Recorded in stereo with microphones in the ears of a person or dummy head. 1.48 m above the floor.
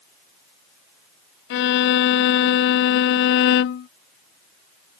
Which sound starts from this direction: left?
A violin, at 1.5 s.